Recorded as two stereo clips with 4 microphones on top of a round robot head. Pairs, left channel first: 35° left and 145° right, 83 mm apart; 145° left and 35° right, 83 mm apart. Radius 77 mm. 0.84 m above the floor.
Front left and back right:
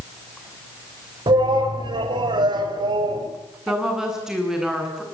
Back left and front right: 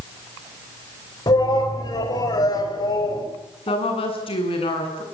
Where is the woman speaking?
135° left, 8 m.